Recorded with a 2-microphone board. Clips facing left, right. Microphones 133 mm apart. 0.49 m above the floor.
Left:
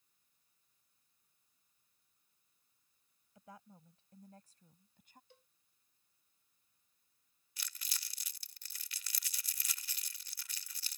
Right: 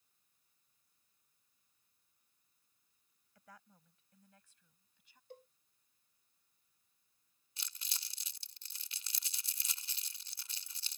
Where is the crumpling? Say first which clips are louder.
Left 1 dB; 25° right (ahead or behind).